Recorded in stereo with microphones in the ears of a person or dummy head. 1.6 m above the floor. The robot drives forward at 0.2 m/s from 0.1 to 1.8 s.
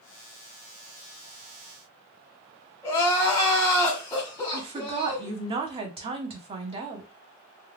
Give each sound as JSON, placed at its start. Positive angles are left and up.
{"t": 2.8, "sound": "crying", "side_deg": 15, "distance_m": 0.9}
{"t": 4.5, "sound": "a woman speaking", "side_deg": -30, "distance_m": 0.6}